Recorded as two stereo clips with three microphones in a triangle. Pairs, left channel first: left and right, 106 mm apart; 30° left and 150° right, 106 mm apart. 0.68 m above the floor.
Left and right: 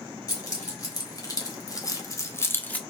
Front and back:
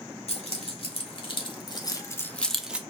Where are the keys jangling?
35° left, 1.4 m; by 2.8 s 150° left, 0.6 m.